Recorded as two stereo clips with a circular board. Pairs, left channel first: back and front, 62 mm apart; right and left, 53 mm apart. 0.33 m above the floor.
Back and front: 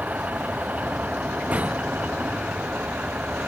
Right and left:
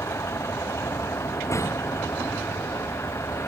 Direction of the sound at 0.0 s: 65° right.